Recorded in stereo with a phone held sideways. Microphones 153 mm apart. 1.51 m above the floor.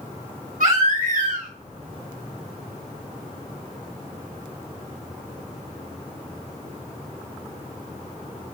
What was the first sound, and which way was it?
A baby crying, 70° right (ahead or behind).